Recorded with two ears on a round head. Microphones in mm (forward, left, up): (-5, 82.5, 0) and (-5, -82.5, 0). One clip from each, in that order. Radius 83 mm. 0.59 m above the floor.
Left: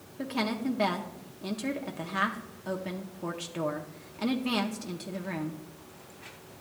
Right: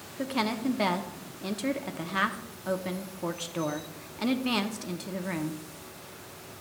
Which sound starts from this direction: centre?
A woman speaking, at 0.2 s.